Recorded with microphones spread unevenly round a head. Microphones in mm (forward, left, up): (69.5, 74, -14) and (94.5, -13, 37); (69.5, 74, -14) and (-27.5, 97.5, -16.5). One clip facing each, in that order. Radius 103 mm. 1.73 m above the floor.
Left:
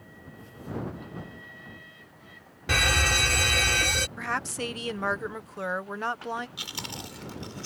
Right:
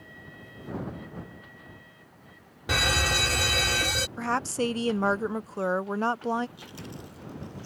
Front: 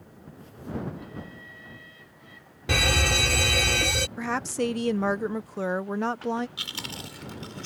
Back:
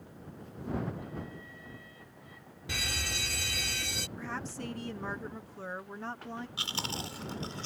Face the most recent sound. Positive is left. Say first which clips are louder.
# left 2 dB, back 1 dB
turn(degrees=110)